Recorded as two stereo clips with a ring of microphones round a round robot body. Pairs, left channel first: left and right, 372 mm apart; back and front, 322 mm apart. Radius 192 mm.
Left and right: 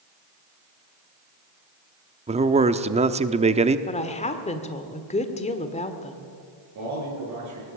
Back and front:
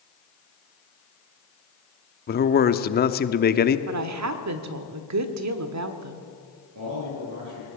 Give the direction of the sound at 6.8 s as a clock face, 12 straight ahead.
1 o'clock.